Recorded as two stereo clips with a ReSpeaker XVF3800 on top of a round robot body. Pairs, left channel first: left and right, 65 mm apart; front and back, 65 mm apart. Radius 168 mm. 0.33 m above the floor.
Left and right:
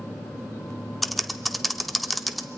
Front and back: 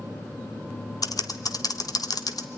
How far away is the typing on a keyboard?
About 1.4 m.